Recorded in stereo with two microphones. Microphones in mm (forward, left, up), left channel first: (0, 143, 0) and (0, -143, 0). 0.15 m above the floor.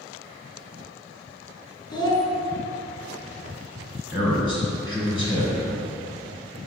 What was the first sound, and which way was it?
A child speaking, 15° left (ahead or behind).